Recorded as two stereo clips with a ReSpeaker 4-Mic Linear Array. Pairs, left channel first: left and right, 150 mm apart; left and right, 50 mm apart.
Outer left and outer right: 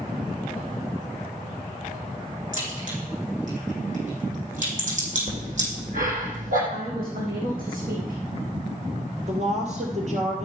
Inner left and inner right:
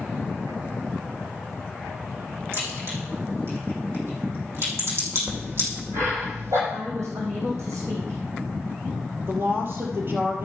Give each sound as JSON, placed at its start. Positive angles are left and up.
{"t": 2.5, "sound": "a crack", "side_deg": -55, "distance_m": 4.5}
{"t": 5.3, "sound": "breathing", "side_deg": -65, "distance_m": 3.5}
{"t": 6.7, "sound": "a woman speaking", "side_deg": -75, "distance_m": 3.5}
{"t": 9.3, "sound": "a woman speaking", "side_deg": -50, "distance_m": 2.5}